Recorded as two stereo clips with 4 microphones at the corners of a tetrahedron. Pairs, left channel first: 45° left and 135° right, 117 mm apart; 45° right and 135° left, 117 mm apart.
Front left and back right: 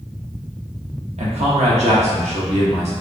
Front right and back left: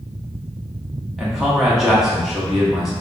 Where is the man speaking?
140° right, 0.8 m.